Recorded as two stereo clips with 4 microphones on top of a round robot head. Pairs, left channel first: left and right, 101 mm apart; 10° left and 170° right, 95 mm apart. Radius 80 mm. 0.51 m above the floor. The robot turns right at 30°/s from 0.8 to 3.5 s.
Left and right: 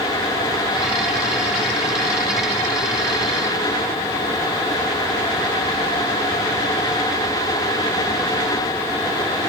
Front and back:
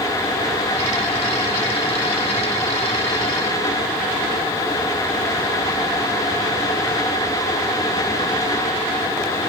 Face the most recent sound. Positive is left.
No sound to turn to.